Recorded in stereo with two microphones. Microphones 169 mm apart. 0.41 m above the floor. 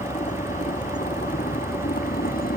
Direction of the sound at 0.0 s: 45° left (ahead or behind).